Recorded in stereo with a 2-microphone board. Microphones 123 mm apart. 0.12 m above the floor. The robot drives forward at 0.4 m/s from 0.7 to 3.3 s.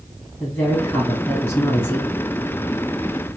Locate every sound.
0.4 s a woman speaking: 15° left (ahead or behind), 1.7 m